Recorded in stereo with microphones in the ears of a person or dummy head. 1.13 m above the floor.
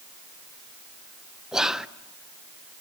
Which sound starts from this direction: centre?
Whispering, at 1.5 s.